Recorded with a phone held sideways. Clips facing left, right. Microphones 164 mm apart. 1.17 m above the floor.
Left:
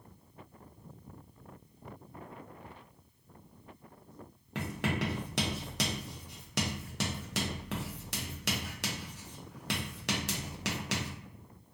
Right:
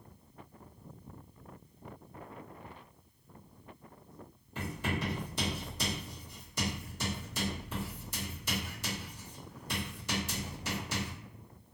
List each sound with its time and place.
4.5 s writing: 75° left (ahead or behind), 0.7 m